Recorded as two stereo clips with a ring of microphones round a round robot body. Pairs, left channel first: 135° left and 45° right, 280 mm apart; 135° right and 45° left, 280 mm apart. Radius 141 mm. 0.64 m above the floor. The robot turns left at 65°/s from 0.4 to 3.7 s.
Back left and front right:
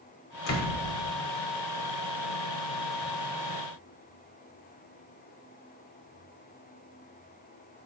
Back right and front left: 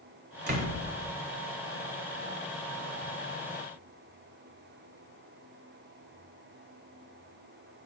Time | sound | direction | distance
0.5 | a door slam | 100° left | 2.5 m